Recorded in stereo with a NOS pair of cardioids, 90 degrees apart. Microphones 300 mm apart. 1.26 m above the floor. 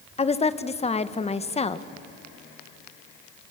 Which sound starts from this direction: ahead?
A woman speaking, at 0.2 s.